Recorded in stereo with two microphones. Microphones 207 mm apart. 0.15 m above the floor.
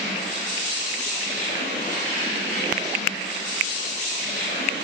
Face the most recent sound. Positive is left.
turn(degrees=40)  # may be behind; listen again after turning